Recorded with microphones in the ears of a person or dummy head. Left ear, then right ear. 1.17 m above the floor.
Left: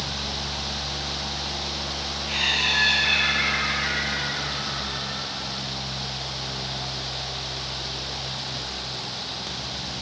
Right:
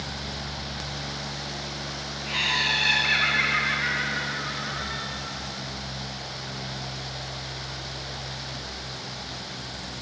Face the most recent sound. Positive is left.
turn(degrees=-70)  # may be behind; listen again after turning